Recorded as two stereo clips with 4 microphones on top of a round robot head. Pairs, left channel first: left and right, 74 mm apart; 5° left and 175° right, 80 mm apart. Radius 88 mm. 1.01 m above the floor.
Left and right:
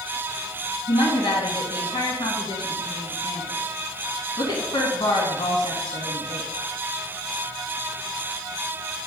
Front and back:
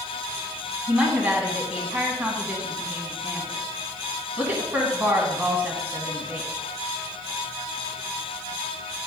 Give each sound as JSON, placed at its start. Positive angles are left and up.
{"t": 0.9, "sound": "a woman speaking", "azimuth_deg": 115, "distance_m": 1.8}